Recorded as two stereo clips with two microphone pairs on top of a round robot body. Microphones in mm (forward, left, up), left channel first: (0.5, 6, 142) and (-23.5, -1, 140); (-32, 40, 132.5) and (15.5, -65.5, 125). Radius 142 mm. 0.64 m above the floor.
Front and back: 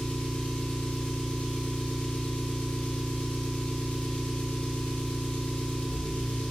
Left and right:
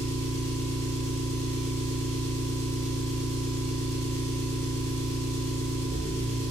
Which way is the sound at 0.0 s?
45° left.